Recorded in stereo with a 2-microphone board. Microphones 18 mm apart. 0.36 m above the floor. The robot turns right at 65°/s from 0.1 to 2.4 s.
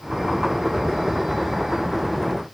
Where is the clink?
No clink in this recording.